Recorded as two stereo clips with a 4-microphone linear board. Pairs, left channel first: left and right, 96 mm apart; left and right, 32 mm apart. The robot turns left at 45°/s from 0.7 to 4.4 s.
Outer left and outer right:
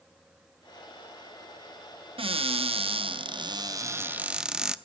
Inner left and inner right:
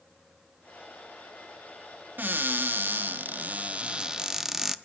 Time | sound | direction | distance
2.2 | a cupboard door | 70° right | 0.6 m